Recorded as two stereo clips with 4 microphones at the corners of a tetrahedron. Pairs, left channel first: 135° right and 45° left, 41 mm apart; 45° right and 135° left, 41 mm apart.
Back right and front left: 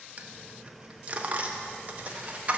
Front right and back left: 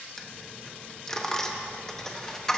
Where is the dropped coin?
20° left, 0.8 m.